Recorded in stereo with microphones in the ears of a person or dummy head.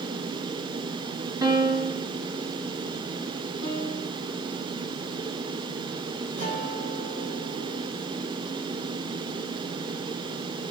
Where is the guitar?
35° right (ahead or behind), 3 m.